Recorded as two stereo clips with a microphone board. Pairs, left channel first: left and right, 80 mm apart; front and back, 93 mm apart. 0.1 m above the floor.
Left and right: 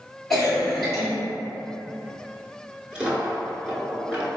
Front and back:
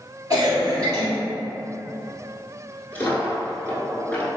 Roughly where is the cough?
Behind.